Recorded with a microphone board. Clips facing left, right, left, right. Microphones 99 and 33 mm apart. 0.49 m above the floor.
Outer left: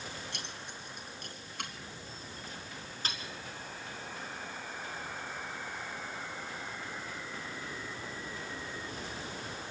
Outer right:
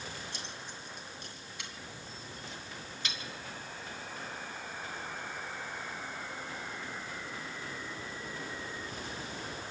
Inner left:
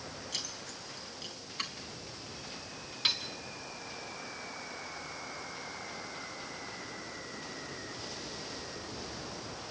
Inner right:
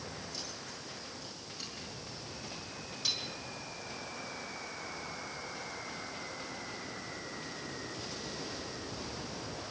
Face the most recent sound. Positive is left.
turn(degrees=40)  # may be behind; listen again after turning